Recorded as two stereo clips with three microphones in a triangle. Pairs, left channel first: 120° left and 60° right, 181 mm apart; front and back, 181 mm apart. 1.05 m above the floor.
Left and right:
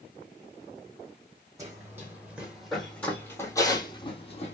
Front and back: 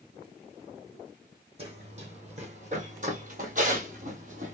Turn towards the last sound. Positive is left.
turn(degrees=155)